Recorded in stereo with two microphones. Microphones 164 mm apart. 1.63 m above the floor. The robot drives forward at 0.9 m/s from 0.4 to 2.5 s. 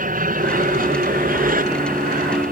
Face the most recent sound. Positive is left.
turn(degrees=-60)  # may be behind; listen again after turning